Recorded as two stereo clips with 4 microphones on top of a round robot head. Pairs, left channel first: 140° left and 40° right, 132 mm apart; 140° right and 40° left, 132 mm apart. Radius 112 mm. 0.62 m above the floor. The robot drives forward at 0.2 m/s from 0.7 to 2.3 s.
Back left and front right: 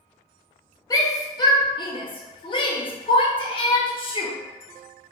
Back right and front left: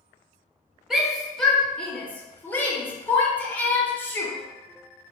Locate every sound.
0.9 s a shout: 125° left, 0.7 m; by 4.3 s 150° left, 0.8 m